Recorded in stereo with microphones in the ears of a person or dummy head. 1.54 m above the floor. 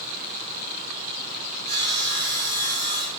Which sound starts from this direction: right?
Sawing, at 1.7 s.